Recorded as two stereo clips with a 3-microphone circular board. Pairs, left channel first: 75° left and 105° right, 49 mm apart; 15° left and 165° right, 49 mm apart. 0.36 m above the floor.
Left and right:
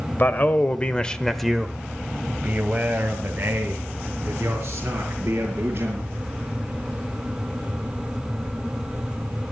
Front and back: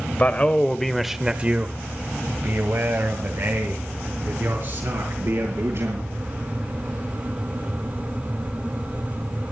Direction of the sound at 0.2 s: 50° left.